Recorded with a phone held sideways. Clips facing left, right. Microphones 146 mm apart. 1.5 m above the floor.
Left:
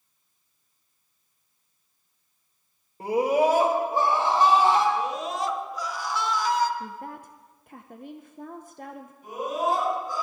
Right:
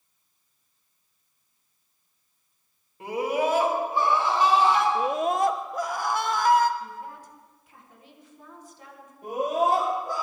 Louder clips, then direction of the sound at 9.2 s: Right 3 dB; 65° right (ahead or behind).